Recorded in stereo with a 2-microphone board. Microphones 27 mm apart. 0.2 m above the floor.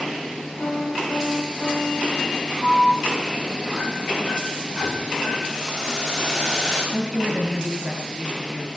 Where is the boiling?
25° left (ahead or behind), 8.5 m.